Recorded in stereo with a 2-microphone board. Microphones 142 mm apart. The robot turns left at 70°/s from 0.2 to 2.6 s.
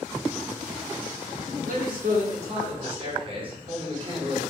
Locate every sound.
1.6 s a man speaking: 75° right, 0.7 m; by 4.4 s 140° right, 0.7 m